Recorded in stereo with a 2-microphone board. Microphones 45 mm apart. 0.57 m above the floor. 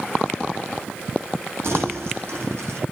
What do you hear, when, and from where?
1.6 s crumpling: 65° right (ahead or behind), 9 m